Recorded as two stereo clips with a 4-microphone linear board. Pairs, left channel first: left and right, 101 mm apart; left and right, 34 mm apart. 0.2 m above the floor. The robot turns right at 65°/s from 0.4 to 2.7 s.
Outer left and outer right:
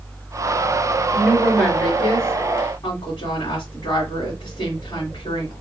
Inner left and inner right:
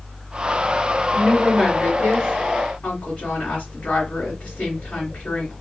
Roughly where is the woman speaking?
Ahead right.